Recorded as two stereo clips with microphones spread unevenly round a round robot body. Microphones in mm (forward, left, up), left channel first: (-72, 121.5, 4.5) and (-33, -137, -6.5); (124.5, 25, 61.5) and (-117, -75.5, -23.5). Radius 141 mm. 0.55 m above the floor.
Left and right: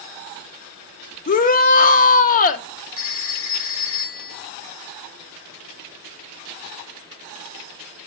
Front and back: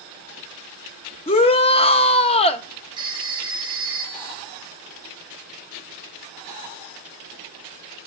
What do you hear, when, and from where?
1.3 s a shout: 105° left, 0.6 m
3.0 s a phone ringing: 135° left, 1.6 m